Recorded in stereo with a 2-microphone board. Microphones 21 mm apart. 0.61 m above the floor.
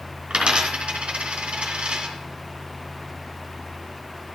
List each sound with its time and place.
0.3 s a dropped coin: 65° right (ahead or behind), 3 m